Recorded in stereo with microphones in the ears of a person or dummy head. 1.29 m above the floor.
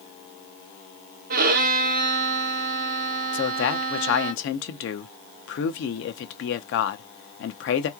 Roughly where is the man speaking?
Left.